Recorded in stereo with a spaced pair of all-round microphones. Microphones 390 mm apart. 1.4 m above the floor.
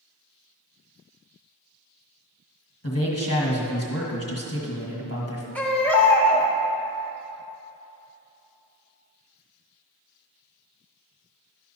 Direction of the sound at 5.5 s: 5° left (ahead or behind).